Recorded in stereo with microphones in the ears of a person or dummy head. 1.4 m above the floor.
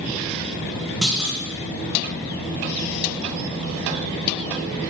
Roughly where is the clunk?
Centre.